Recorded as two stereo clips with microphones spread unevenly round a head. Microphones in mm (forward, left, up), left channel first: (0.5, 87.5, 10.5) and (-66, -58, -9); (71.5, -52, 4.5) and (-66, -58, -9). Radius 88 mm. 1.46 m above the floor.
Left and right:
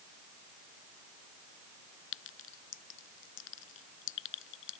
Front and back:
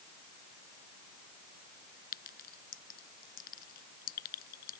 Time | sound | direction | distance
2.1 | a clink | 45° left | ?